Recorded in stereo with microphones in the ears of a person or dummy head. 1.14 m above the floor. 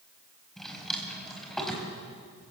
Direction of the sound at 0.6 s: Centre (ahead or behind).